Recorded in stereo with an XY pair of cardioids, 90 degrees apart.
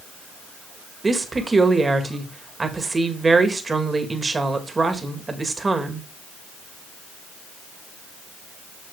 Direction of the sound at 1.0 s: 35° right.